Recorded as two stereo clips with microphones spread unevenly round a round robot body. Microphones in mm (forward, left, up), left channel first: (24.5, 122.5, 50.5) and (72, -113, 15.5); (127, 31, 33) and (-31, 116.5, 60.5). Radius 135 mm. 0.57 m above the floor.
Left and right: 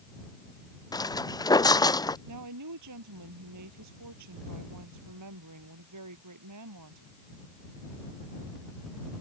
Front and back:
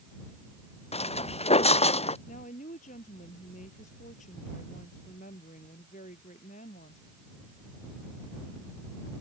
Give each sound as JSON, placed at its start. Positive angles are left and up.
{"t": 0.9, "sound": "footsteps", "azimuth_deg": 25}
{"t": 2.3, "sound": "a woman speaking", "azimuth_deg": -90}